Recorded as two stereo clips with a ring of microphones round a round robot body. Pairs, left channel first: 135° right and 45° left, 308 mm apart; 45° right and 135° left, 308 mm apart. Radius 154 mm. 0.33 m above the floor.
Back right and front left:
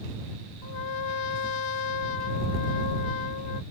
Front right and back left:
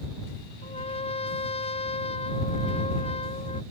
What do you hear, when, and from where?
0.6 s a trumpet: 115° right